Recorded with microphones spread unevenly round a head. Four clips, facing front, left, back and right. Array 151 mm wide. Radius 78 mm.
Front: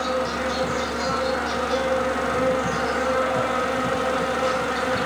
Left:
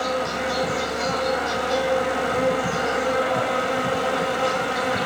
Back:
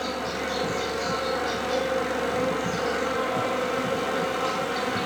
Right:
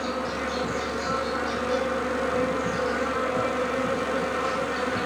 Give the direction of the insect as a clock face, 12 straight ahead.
10 o'clock.